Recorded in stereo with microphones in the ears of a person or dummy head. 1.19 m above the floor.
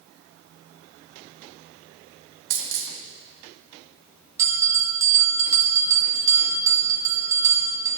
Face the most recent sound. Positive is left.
turn(degrees=-15)  # may be behind; listen again after turning